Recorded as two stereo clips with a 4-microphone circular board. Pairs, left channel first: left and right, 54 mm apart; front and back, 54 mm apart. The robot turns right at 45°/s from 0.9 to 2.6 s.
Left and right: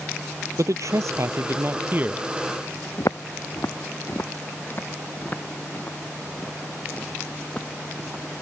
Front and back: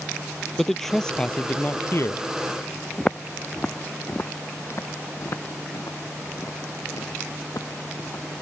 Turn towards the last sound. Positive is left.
turn(degrees=20)